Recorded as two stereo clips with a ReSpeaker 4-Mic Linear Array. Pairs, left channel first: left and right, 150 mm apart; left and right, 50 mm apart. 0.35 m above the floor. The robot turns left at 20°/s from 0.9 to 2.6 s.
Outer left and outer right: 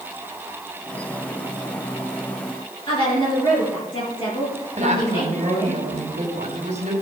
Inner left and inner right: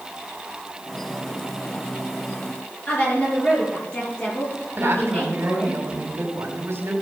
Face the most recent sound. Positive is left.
turn(degrees=-50)  # may be behind; listen again after turning